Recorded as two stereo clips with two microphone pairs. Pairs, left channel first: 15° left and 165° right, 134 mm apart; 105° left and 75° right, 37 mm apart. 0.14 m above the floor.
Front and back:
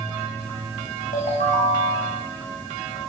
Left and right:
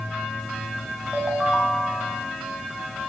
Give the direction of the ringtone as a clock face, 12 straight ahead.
12 o'clock.